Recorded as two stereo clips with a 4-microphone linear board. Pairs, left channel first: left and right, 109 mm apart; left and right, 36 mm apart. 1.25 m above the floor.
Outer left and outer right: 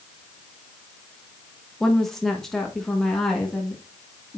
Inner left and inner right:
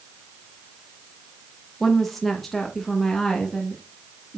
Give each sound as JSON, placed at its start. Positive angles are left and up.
{"t": 1.8, "sound": "a woman speaking", "side_deg": 0, "distance_m": 1.0}